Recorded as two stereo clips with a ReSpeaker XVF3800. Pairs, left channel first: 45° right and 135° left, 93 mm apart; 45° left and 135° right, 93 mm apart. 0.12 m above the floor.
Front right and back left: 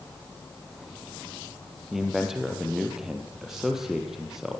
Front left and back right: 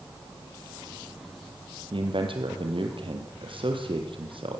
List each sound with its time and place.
1.9 s a man speaking: 140° right, 4 m